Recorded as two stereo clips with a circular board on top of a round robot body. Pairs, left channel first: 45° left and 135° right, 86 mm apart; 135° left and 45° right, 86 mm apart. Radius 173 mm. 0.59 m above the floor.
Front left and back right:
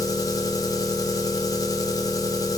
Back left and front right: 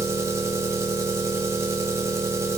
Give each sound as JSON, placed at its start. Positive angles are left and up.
{"t": 0.0, "sound": "an engine running", "azimuth_deg": 10, "distance_m": 1.3}